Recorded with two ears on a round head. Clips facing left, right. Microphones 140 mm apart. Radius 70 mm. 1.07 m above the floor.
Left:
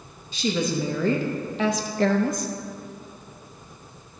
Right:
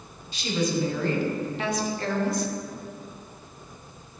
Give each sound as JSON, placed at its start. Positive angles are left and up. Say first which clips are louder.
{"t": 0.3, "sound": "a woman speaking", "louder": "left 1 dB", "side_deg": 75, "distance_m": 1.5}